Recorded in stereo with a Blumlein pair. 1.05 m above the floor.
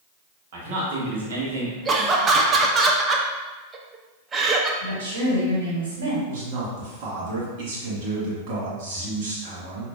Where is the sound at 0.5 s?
55° right, 1.5 m; by 1.8 s 75° right, 1.1 m.